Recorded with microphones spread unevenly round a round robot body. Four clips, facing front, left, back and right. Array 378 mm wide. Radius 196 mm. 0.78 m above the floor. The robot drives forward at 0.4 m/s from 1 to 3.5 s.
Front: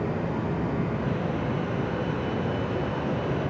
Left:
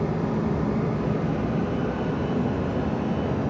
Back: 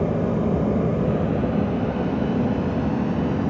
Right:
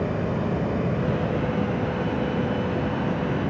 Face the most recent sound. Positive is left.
turn(degrees=-175)